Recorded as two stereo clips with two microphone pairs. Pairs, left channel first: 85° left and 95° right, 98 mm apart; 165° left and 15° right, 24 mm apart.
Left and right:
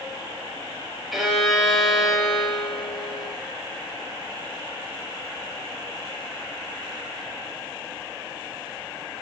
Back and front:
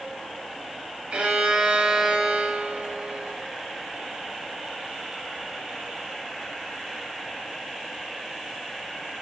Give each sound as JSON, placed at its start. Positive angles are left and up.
{"t": 1.1, "sound": "a violin", "azimuth_deg": -10, "distance_m": 1.2}